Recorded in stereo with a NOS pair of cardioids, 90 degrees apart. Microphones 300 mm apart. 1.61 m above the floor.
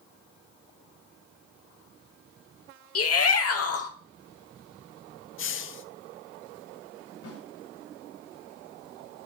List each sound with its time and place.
3.0 s a shout: 50° left, 1.9 m
5.4 s a hiss: 45° left, 0.7 m
7.2 s a snare drum: 50° left, 4 m